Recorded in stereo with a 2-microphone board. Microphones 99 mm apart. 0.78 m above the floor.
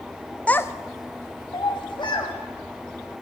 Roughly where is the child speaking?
Centre.